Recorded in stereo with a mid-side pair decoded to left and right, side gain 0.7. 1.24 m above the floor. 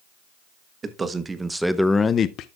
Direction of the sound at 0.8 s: 25° right.